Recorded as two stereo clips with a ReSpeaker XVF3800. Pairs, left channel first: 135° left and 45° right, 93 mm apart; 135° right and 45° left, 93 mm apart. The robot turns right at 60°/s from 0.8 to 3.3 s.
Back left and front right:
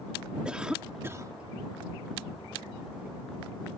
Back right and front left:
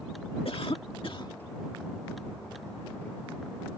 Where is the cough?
125° right; by 1.3 s 95° right.